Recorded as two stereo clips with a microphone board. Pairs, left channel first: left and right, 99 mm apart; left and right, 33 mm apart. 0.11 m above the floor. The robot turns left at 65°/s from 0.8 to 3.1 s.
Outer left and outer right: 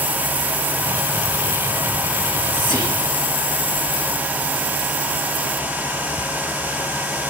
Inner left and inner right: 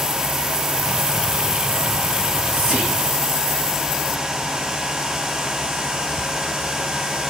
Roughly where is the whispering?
Right.